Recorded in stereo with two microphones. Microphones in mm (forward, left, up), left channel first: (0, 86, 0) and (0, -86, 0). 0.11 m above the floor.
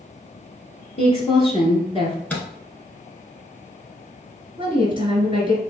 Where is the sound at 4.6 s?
30° right (ahead or behind), 1.8 m.